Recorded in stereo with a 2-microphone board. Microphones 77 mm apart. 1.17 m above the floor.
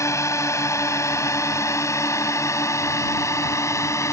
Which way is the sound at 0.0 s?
40° left (ahead or behind).